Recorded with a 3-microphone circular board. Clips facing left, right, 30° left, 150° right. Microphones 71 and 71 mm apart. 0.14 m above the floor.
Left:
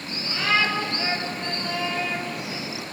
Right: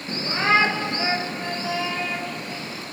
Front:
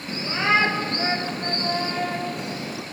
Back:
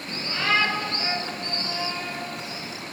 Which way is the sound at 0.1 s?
45° right.